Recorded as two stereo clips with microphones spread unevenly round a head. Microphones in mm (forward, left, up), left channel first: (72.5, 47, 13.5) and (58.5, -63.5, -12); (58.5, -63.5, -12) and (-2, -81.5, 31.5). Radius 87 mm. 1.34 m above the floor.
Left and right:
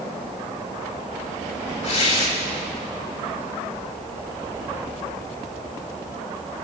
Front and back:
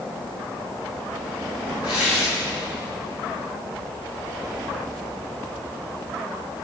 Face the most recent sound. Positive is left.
turn(degrees=65)